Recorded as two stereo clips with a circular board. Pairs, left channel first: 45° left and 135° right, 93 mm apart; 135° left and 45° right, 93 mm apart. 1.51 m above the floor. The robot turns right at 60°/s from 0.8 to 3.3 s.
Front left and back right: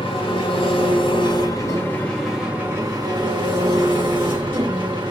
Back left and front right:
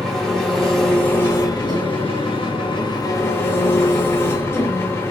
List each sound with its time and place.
0.0 s an engine running: 45° left, 1.4 m; by 5.1 s 165° right, 1.4 m